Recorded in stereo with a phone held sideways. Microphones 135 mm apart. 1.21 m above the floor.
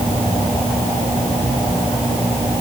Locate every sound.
Only background noise.